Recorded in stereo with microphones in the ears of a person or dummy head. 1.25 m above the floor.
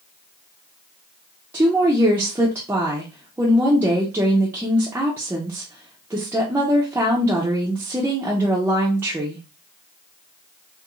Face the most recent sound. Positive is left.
turn(degrees=-5)  # may be behind; listen again after turning